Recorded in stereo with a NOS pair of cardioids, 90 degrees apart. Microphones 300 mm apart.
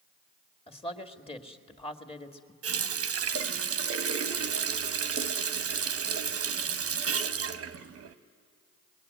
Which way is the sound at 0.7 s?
20° left.